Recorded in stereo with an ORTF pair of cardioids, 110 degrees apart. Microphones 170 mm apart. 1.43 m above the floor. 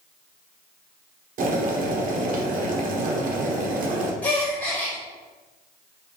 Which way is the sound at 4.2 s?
10° left.